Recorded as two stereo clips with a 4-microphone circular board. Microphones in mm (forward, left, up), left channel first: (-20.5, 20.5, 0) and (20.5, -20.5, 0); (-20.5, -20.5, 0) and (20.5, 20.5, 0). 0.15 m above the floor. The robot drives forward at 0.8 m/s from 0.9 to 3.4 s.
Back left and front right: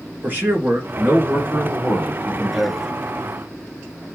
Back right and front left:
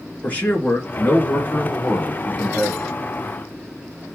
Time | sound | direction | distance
0.2 | a man speaking | 80° right | 2.5 m